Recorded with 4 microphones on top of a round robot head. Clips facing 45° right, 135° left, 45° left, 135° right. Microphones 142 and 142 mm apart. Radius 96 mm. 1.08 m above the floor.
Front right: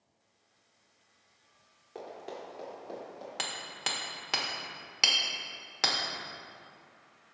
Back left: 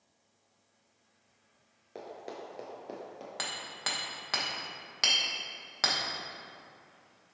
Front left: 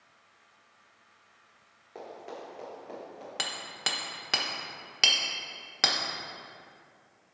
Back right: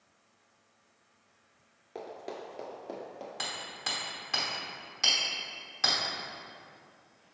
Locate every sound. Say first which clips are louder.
1.9 s running footsteps: even, back right 1 dB; 175° right, 1.0 m; by 3.3 s 165° left, 1.8 m
3.4 s hammering: front right 1 dB, front left 2 dB; 30° left, 1.2 m